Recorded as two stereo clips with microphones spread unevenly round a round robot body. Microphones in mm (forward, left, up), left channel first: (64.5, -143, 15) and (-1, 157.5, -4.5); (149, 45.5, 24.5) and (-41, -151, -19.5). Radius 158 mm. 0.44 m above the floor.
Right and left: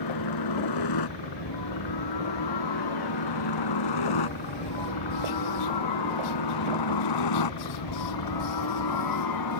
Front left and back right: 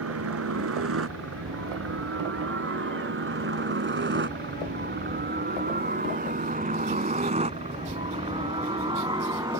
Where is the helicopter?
100° right; by 9.6 s 55° right.